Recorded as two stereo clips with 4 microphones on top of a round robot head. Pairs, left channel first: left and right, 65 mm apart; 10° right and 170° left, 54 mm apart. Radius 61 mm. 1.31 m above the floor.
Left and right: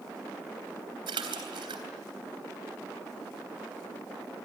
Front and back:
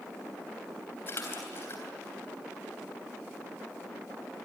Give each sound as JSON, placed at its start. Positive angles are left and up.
{"t": 1.1, "sound": "a splash", "azimuth_deg": -70, "distance_m": 3.0}